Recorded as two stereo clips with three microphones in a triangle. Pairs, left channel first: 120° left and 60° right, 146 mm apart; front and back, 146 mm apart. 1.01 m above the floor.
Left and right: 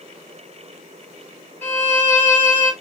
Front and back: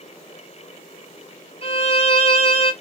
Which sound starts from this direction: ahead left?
A violin, at 1.6 s.